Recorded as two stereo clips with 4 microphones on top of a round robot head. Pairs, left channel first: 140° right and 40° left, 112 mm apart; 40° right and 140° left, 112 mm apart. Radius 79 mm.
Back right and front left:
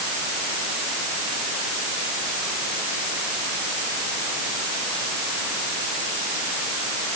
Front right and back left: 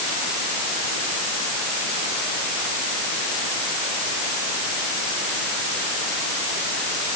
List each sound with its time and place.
Only background noise.